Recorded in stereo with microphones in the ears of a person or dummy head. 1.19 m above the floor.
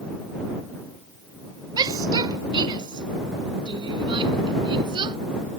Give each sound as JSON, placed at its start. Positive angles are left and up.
{"t": 1.8, "sound": "a shout", "side_deg": -25}